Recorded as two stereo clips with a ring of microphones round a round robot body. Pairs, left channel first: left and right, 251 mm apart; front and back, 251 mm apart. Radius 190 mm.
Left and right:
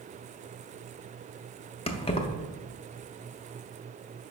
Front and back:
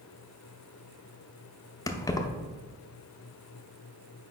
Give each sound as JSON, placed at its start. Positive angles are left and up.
{"t": 1.9, "sound": "keys jangling", "azimuth_deg": 60, "distance_m": 0.5}